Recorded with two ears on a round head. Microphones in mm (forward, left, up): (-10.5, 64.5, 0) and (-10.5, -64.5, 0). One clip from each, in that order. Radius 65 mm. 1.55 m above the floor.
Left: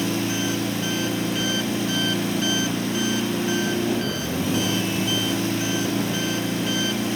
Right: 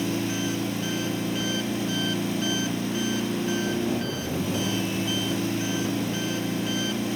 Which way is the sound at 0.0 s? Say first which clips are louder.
Left 3 dB; 10° left (ahead or behind).